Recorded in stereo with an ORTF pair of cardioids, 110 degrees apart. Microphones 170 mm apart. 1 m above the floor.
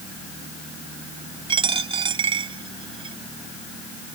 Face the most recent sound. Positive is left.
turn(degrees=-30)